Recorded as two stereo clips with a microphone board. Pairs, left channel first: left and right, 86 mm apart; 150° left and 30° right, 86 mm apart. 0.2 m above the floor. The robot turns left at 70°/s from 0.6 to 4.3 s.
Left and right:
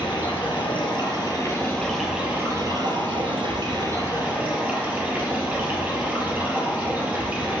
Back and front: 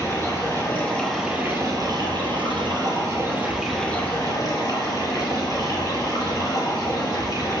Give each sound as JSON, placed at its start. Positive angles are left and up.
{"t": 0.0, "sound": "running water", "azimuth_deg": 100, "distance_m": 1.9}